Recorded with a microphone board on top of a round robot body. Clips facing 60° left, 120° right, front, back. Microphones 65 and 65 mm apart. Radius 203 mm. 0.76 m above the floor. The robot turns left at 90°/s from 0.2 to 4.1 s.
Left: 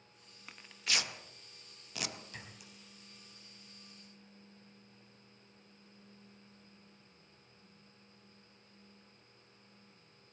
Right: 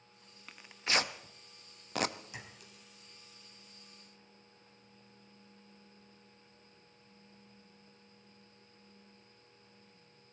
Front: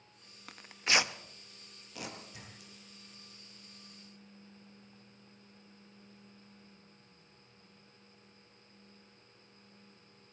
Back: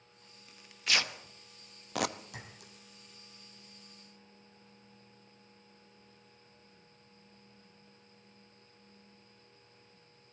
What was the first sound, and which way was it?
Tearing paper, 25° right.